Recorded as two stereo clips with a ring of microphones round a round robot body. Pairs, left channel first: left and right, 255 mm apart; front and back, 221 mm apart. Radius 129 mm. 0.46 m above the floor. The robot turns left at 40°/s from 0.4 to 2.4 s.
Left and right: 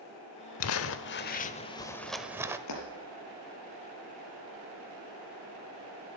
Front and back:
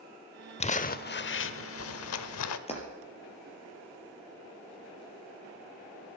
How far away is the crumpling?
About 0.8 m.